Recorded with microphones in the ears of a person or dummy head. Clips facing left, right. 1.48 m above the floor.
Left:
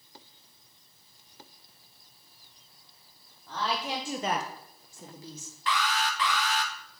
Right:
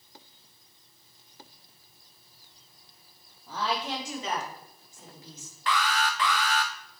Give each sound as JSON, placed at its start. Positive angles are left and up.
{"t": 3.5, "sound": "a woman speaking", "side_deg": -10, "distance_m": 1.3}
{"t": 5.7, "sound": "an alarm", "side_deg": -40, "distance_m": 0.8}